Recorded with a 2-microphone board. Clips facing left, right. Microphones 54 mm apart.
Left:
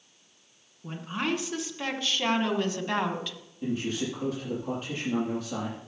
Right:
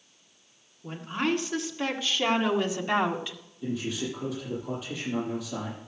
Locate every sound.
0.8 s a woman speaking: 5° left (ahead or behind), 2.5 m; by 3.4 s 20° right (ahead or behind), 1.4 m
3.6 s a man speaking: 55° left (ahead or behind), 7.5 m